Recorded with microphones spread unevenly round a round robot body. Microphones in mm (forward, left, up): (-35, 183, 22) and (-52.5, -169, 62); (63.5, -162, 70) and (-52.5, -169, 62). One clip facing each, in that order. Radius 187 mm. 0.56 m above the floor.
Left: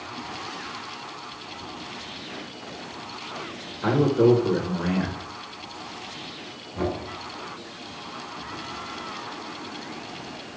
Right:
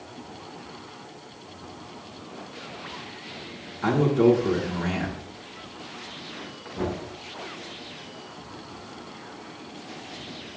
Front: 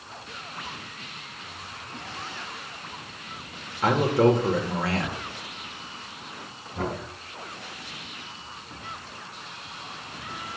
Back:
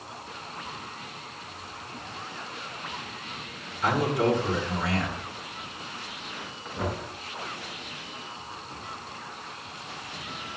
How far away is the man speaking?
About 2.5 m.